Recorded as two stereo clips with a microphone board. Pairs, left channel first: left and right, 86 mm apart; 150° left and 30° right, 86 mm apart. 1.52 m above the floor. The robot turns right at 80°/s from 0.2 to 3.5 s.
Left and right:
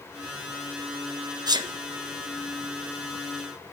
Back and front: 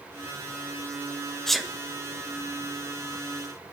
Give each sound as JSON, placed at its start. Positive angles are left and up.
{"t": 1.5, "sound": "a sneeze", "azimuth_deg": -125, "distance_m": 1.2}